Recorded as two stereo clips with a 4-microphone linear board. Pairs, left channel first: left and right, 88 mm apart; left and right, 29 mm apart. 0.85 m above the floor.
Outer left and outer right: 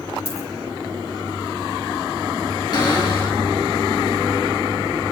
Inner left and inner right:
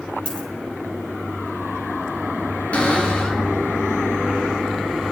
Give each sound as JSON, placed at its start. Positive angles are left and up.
{"t": 0.2, "sound": "a dropped coin", "side_deg": 35, "distance_m": 3.0}
{"t": 2.7, "sound": "a cupboard door", "side_deg": 60, "distance_m": 3.5}